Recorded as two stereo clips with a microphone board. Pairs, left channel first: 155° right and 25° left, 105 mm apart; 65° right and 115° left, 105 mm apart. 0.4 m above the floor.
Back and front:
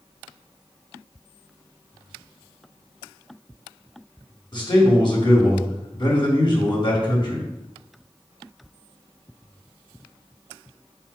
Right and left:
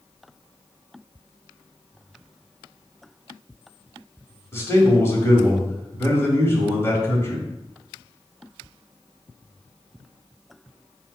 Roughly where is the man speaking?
Behind right.